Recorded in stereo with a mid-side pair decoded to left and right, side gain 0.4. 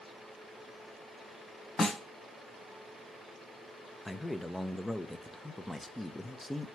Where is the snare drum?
30° left, 1.5 m.